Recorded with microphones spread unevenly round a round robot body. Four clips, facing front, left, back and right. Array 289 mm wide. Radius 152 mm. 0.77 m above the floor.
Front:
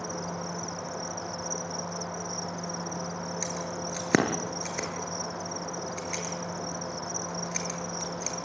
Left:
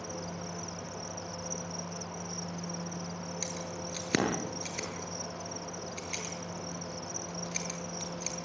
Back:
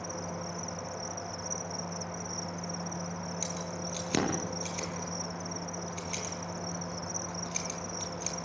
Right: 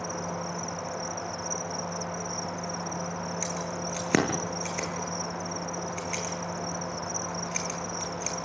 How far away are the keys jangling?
About 8.5 m.